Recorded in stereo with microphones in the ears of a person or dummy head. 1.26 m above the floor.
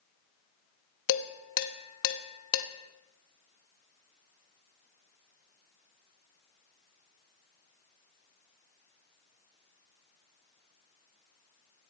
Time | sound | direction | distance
1.1 | dishes clattering | 70° left (ahead or behind) | 1.0 m